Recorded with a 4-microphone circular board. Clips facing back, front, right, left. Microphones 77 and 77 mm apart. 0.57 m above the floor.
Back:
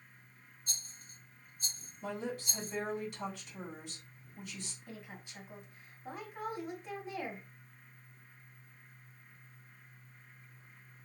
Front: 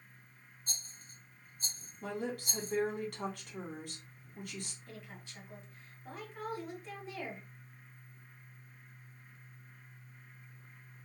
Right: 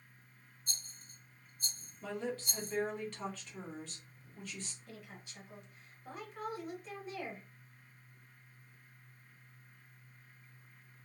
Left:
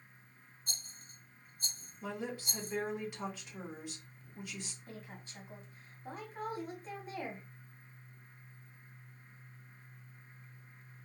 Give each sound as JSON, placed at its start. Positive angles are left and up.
{"t": 0.7, "sound": "a rattle", "azimuth_deg": 50, "distance_m": 2.5}
{"t": 2.0, "sound": "a woman speaking", "azimuth_deg": 15, "distance_m": 1.5}
{"t": 4.9, "sound": "a woman speaking", "azimuth_deg": 115, "distance_m": 1.5}